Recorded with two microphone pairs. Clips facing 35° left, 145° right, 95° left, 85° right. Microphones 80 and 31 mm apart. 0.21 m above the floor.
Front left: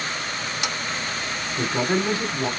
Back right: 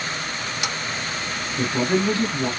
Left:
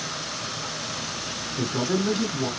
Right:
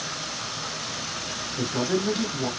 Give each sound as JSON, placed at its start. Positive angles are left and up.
{"t": 1.6, "sound": "a man speaking", "azimuth_deg": -15, "distance_m": 1.3}